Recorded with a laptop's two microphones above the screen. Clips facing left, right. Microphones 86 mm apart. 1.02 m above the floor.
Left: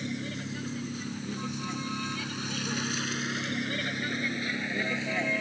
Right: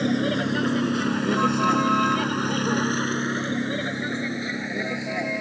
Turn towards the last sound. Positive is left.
turn(degrees=-15)  # may be behind; listen again after turning